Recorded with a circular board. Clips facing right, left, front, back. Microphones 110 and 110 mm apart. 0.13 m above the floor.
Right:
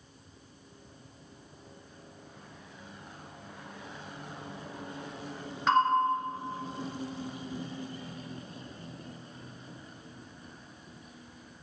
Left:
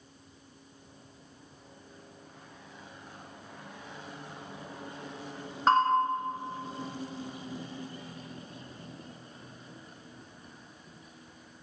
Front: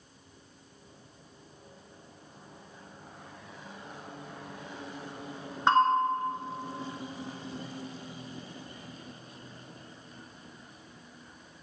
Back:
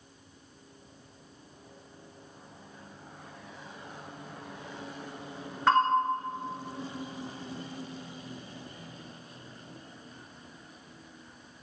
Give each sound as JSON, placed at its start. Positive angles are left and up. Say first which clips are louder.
{"t": 5.7, "sound": "a bell", "louder": "left 1 dB, even", "azimuth_deg": 60, "distance_m": 1.6}